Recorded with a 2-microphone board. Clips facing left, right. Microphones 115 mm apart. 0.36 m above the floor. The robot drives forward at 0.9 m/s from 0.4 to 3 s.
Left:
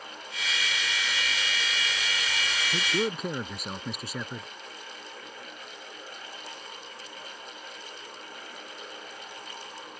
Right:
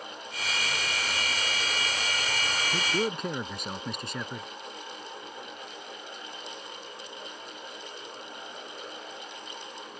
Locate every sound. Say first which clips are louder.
2.7 s a man speaking: left 1 dB; centre (ahead or behind)